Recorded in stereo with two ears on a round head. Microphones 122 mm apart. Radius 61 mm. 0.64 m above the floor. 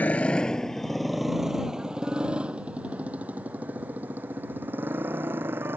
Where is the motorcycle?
10° left (ahead or behind); by 5.8 s 15° right (ahead or behind).